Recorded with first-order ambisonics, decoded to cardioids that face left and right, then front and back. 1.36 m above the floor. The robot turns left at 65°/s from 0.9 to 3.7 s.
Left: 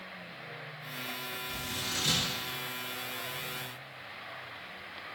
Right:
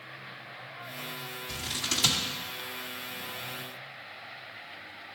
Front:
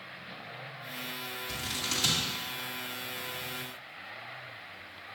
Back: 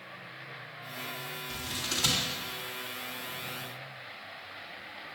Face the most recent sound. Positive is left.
turn(degrees=-175)